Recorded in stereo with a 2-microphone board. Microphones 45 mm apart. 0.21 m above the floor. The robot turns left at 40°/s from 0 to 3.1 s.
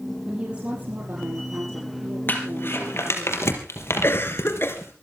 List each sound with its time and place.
0.2 s a woman speaking: 15° right, 6 m; by 3.3 s 125° right, 6 m
2.3 s crumpling: 45° left (ahead or behind), 4 m; by 4.9 s 70° left (ahead or behind), 4 m
4.0 s a cough: 55° left (ahead or behind), 3 m